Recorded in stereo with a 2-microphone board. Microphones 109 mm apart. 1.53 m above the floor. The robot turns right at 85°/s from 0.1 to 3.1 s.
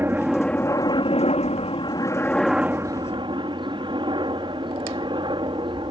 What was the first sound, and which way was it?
A helicopter, 20° right.